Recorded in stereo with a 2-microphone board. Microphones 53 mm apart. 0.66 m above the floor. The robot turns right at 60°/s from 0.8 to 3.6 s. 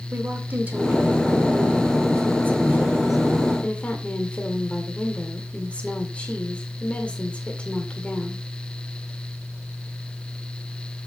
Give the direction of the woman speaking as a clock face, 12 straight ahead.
5 o'clock.